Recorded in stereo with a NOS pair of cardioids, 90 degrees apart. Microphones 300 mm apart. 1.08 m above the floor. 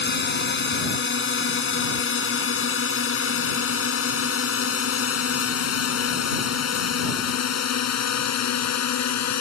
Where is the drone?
35° left; by 9.4 s 60° left.